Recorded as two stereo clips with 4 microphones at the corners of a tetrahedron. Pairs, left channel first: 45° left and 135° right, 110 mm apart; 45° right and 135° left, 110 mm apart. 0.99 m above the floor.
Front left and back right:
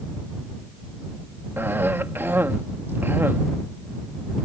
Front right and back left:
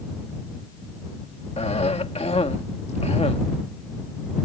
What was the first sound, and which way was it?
A cough, 65° right.